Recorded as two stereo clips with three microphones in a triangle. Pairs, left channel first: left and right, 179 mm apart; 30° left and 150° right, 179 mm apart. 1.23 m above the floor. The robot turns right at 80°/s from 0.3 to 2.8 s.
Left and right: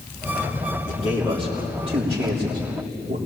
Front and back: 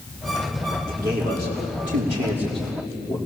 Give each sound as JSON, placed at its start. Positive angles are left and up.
{"t": 0.9, "sound": "a man speaking", "azimuth_deg": 135, "distance_m": 3.0}